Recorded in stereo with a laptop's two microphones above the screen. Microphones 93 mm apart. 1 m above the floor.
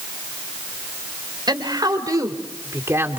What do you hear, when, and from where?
1.5 s a woman speaking: 50° right (ahead or behind), 4.5 m; by 3.2 s 25° right (ahead or behind), 3 m